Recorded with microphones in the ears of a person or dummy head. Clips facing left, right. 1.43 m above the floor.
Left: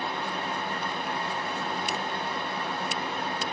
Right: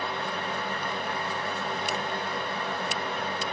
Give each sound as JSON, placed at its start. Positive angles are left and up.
{"t": 0.0, "sound": "a fan", "side_deg": -40, "distance_m": 1.8}